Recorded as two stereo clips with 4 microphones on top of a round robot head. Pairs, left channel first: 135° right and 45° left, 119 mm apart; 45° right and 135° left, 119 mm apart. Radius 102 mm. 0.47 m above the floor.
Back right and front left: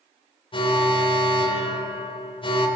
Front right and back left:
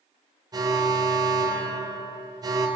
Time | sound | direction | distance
0.5 | an alarm | 175° right | 3.5 m